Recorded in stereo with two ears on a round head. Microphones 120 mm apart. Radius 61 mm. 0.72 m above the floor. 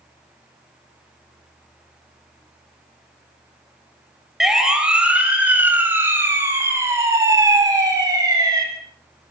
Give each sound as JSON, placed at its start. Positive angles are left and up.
{"t": 4.4, "sound": "a siren", "side_deg": -5, "distance_m": 5.5}